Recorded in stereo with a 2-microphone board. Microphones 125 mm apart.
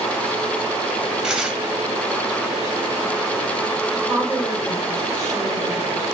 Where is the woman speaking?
45° right (ahead or behind), 2.5 m.